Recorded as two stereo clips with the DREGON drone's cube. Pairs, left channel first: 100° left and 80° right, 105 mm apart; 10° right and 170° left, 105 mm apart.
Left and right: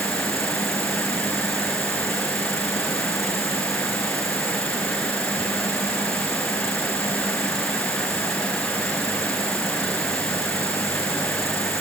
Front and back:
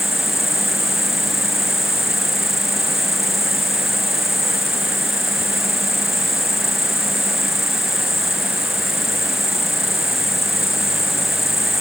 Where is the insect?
80° left.